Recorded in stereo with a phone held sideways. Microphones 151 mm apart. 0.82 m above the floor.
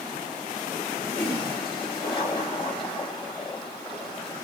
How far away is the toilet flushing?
About 3 m.